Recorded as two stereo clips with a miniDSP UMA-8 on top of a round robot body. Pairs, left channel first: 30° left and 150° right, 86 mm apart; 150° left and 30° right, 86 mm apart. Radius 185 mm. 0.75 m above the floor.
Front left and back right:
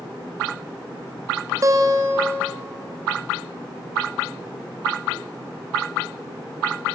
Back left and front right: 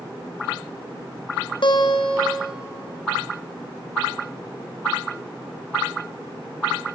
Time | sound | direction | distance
1.6 | a guitar | 165° left | 2.5 m